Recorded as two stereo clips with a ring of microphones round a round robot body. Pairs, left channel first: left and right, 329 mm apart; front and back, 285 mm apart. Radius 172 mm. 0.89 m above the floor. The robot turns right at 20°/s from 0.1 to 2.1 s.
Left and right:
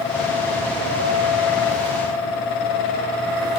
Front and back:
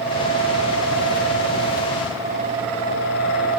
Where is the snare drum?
No snare drum in this recording.